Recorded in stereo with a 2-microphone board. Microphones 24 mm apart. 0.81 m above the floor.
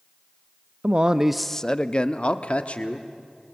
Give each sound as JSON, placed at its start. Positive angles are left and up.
{"t": 0.8, "sound": "a man speaking", "side_deg": -55, "distance_m": 0.7}